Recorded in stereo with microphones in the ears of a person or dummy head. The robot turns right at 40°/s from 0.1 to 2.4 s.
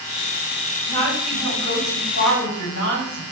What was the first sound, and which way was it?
A woman speaking, 25° left.